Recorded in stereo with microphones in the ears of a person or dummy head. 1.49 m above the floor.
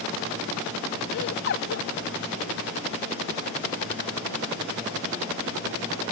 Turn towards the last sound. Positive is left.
turn(degrees=55)  # may be behind; listen again after turning